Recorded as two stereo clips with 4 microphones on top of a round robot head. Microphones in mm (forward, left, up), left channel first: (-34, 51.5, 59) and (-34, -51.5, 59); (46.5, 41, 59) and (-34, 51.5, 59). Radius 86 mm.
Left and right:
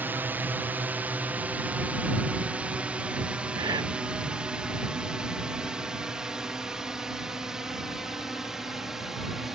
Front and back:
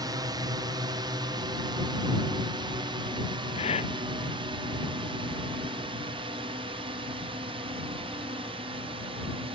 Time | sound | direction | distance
0.0 | a drone | 160° right | ?
3.5 | breathing | 25° right | ?